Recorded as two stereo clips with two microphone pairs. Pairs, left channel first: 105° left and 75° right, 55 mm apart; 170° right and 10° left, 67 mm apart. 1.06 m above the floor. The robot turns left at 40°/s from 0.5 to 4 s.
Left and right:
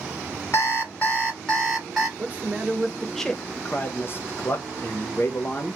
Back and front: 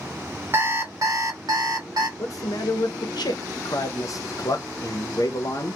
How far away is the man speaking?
About 0.6 m.